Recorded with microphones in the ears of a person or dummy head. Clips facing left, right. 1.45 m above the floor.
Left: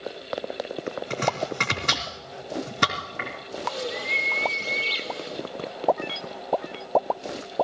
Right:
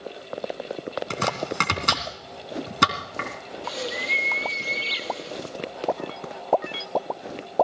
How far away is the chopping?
About 2.5 m.